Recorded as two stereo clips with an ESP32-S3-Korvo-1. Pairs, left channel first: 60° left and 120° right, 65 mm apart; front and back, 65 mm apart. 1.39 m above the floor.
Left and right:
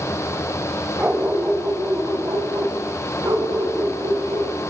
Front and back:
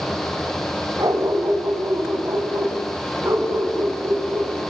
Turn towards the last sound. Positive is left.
turn(degrees=-130)